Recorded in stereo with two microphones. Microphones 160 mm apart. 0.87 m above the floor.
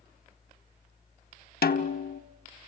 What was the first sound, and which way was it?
A snare drum, 75° left (ahead or behind).